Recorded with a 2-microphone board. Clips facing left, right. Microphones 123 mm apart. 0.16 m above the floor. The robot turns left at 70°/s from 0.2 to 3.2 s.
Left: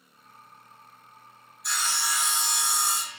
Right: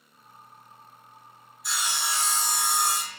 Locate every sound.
1.6 s sawing: straight ahead, 0.7 m; by 3.2 s 110° right, 0.7 m